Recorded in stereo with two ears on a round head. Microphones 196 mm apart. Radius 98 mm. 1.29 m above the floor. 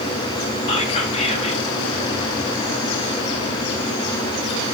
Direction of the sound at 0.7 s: 25° left (ahead or behind).